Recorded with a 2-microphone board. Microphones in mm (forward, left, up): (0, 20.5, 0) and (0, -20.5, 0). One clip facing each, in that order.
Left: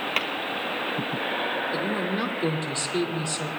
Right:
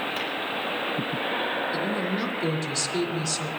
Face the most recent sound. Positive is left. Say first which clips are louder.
# even
turn(degrees=25)  # may be behind; listen again after turning